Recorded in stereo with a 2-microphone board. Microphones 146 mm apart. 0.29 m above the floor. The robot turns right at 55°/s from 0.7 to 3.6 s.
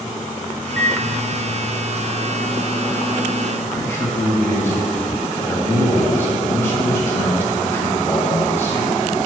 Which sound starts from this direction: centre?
A man speaking, at 3.6 s.